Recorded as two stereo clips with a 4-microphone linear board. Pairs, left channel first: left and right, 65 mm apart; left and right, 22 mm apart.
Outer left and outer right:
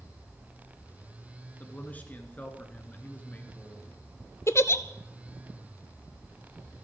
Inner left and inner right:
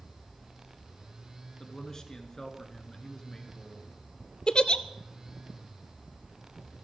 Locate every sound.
1.6 s a man speaking: 25° left (ahead or behind), 2.5 m
4.5 s a giggle: 45° left (ahead or behind), 0.7 m